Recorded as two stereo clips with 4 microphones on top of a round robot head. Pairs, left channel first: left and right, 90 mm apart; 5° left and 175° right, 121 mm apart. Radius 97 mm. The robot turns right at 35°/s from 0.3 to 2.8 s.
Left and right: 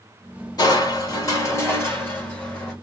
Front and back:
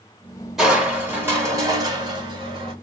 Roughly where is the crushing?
Left.